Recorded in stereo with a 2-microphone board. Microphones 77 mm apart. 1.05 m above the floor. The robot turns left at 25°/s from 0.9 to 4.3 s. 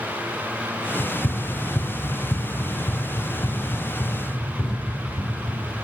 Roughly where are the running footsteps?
Left.